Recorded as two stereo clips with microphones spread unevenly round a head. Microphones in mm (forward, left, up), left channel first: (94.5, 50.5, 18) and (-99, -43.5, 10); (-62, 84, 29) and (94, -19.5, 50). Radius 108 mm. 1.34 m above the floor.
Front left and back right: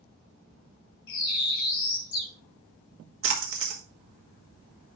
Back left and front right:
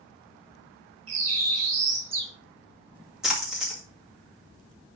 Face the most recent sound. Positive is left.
turn(degrees=-120)